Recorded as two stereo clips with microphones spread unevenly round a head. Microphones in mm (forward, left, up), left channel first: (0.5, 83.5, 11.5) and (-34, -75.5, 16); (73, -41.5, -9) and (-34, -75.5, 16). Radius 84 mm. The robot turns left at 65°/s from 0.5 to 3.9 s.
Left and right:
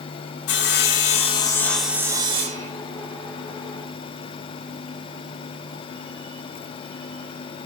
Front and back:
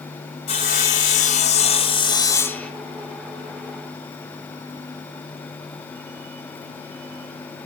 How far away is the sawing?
About 2.5 m.